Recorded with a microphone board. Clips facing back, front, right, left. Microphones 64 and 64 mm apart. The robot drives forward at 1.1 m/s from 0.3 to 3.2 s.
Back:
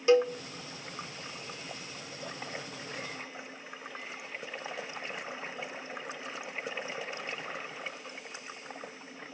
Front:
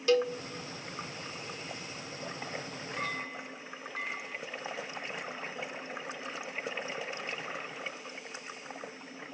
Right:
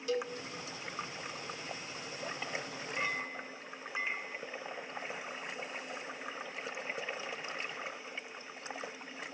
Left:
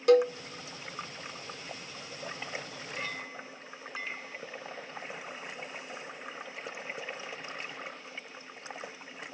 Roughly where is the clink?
Ahead.